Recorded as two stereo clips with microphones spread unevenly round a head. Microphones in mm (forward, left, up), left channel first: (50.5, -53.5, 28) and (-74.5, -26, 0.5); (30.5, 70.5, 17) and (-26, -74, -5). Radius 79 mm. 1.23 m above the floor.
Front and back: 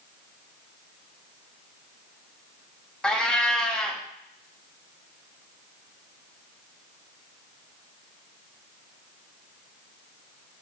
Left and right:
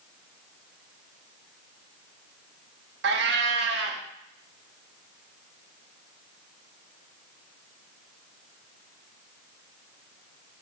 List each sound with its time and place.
3.0 s a cat meowing: 90° right, 1.1 m